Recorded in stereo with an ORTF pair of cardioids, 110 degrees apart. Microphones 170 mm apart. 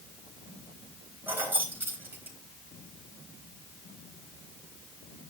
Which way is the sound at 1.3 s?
10° right.